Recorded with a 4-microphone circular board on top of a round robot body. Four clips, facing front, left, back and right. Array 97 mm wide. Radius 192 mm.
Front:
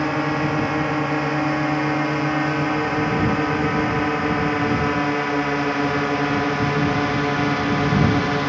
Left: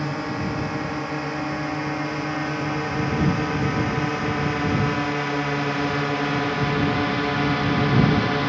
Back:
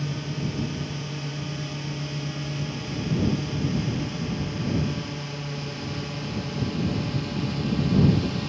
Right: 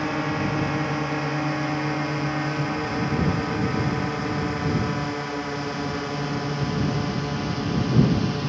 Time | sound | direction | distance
0.0 | a drone | 5° right | ?